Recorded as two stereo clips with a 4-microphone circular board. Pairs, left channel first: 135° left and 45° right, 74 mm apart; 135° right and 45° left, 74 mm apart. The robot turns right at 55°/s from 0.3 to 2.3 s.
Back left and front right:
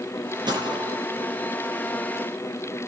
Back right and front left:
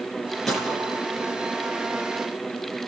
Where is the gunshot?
50° right, 9 m; by 1.0 s 20° right, 9 m.